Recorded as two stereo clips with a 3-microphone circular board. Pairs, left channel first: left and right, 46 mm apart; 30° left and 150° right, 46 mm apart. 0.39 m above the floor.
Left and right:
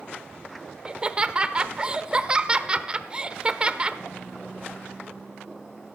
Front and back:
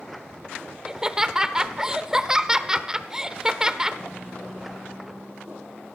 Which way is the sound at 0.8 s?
100° right.